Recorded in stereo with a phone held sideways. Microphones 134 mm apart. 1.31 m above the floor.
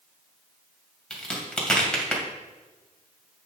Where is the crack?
5° left (ahead or behind), 2 m.